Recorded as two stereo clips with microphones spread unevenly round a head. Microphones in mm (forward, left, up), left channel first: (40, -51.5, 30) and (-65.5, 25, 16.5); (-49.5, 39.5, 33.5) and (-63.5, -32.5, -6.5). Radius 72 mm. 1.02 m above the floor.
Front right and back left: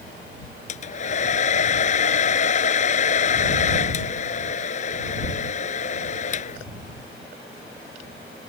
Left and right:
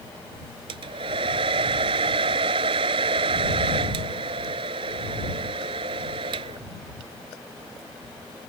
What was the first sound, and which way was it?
A hair dryer, 70° right.